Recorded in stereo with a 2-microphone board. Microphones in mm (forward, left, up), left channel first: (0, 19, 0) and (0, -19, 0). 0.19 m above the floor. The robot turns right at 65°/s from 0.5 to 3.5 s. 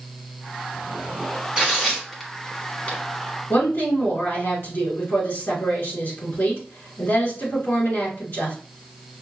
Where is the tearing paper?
20° right (ahead or behind), 1.2 m; by 3.0 s 30° left (ahead or behind), 1.2 m.